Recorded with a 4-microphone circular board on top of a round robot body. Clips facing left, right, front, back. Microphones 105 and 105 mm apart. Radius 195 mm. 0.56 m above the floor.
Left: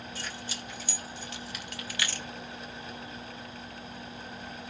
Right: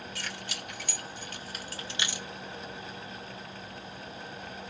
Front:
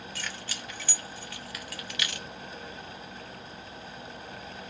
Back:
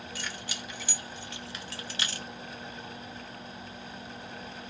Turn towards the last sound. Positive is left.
turn(degrees=-170)